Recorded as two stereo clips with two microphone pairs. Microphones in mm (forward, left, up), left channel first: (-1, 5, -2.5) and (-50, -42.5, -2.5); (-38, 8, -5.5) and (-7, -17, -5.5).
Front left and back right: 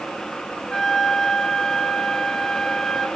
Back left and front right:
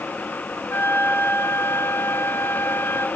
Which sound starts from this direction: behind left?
A flute, at 0.7 s.